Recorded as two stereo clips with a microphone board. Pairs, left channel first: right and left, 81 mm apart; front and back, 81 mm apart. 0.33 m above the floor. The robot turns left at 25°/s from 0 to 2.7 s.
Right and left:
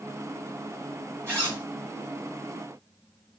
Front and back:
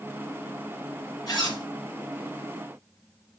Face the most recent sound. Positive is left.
turn(degrees=0)